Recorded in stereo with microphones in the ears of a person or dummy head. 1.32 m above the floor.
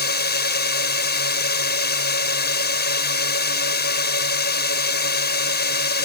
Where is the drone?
50° left (ahead or behind).